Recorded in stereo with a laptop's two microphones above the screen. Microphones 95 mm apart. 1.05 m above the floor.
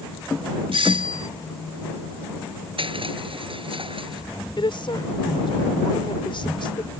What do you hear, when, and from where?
0.7 s a doorbell: 70° right (ahead or behind)
2.8 s crushing: 65° right (ahead or behind)
4.6 s a woman speaking: 60° left (ahead or behind)